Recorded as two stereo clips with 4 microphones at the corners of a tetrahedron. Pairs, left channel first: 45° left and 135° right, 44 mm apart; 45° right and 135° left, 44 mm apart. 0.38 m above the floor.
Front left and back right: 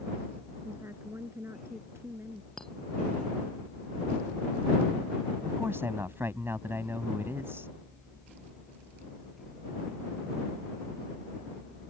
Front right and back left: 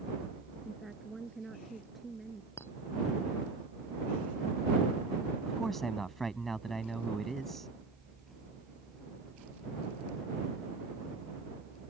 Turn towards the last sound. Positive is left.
turn(degrees=-130)